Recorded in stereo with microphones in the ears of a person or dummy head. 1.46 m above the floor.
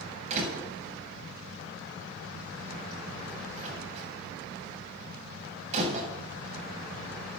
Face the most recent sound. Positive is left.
turn(degrees=-35)  # may be behind; listen again after turning